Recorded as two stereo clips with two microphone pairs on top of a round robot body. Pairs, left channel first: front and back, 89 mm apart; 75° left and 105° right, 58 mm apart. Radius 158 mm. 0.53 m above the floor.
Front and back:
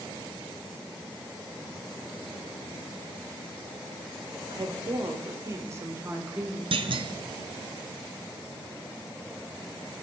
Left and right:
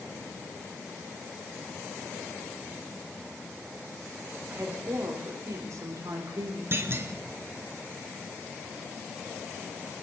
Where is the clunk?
155° right, 1.0 m.